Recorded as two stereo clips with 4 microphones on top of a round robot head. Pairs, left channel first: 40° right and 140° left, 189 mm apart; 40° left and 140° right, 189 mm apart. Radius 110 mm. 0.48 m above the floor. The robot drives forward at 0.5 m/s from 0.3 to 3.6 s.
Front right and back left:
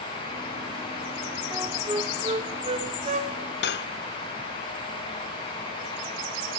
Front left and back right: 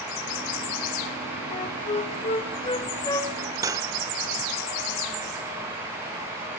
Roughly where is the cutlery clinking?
Ahead right.